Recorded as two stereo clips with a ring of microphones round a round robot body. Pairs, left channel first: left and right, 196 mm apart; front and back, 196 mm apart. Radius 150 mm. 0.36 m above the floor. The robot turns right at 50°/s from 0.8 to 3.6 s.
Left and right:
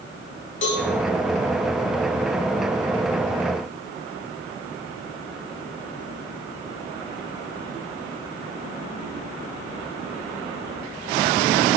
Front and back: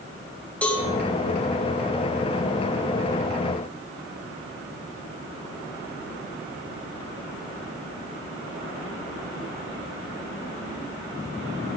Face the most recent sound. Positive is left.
turn(degrees=-135)